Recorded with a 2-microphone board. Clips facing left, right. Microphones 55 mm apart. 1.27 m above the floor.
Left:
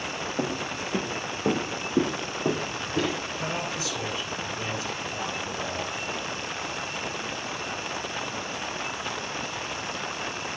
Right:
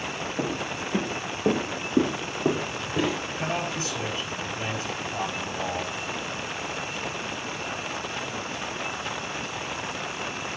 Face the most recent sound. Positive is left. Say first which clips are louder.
# right 2 dB
turn(degrees=-40)  # may be behind; listen again after turning